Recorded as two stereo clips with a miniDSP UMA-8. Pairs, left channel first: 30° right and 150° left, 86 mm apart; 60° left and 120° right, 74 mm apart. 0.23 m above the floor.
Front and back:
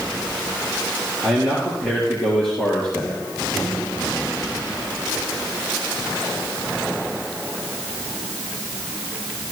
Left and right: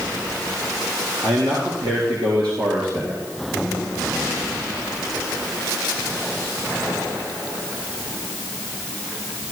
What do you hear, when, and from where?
1.2 s a man speaking: 130° right, 3.5 m; by 3.2 s 105° right, 3.5 m